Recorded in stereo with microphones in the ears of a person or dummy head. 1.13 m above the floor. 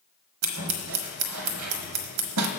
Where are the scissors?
75° right (ahead or behind), 1.0 m.